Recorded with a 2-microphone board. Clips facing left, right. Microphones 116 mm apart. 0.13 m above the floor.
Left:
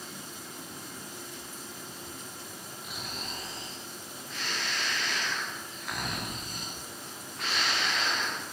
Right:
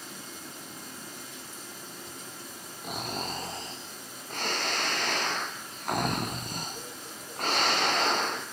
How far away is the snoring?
About 4.5 m.